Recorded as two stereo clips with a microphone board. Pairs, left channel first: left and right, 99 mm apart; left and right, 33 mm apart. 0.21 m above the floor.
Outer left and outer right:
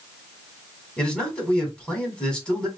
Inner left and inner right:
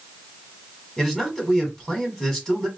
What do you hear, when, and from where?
1.0 s a man speaking: 10° left (ahead or behind), 1.7 m